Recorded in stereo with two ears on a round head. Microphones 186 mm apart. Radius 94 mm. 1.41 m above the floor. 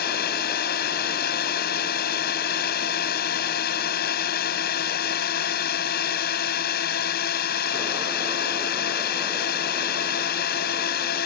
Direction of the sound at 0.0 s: 45° left (ahead or behind).